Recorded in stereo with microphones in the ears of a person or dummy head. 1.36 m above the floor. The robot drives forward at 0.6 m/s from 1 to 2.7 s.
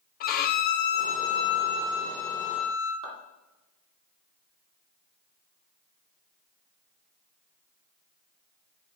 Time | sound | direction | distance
0.2 | a violin | 50° left (ahead or behind) | 0.5 m
3.0 | a clap | 80° right | 2.5 m